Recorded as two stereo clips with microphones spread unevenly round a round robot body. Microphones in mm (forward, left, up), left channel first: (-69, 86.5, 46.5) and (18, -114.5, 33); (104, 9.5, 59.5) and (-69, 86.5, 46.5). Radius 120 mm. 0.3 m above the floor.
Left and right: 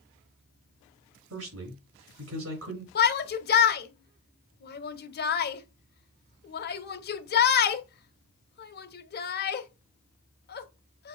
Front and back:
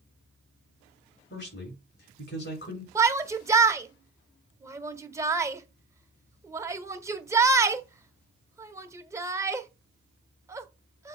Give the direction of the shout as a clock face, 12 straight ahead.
9 o'clock.